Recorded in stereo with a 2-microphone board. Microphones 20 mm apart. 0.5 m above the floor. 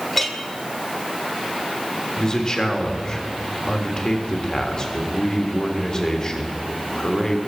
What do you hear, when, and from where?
0.1 s a clink: 10° left (ahead or behind), 1.3 m
2.2 s a man speaking: 30° left (ahead or behind), 1.8 m